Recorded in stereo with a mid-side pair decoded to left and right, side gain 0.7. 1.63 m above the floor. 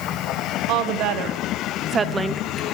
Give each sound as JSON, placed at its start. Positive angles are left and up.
{"t": 0.7, "sound": "a woman speaking", "azimuth_deg": -65, "distance_m": 1.5}